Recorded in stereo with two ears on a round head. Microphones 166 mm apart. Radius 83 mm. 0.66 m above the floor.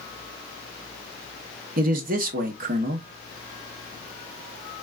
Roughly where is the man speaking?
Right.